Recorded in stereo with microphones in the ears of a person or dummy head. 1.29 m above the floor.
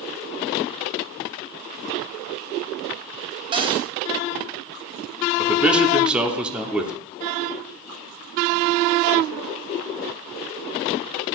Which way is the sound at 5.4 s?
5° right (ahead or behind).